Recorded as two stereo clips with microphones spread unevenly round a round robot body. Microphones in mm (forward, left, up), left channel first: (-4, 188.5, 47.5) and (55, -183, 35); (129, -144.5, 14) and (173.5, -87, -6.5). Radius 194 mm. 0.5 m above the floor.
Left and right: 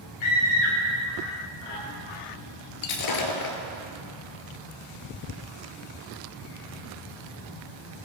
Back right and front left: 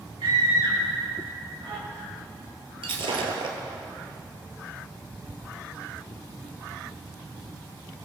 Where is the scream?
85° left, 6 m; by 1.8 s 90° left, 7 m.